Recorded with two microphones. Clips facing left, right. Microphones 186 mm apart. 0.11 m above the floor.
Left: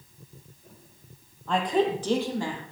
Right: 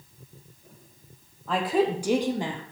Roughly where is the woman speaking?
Centre.